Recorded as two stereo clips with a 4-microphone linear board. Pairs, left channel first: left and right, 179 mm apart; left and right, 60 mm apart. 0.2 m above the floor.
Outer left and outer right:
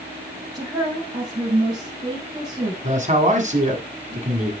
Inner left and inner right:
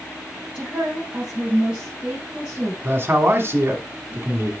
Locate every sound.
0.5 s a woman speaking: 20° right (ahead or behind), 5.5 m
2.8 s a man speaking: 45° right (ahead or behind), 1.6 m